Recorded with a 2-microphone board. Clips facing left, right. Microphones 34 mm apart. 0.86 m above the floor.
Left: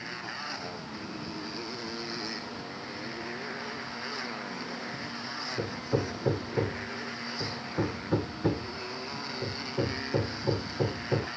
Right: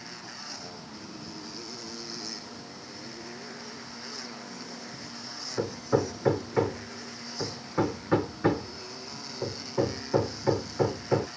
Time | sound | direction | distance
0.0 | a motorcycle | 30° left (ahead or behind) | ?
5.6 | hammering | 55° right (ahead or behind) | ?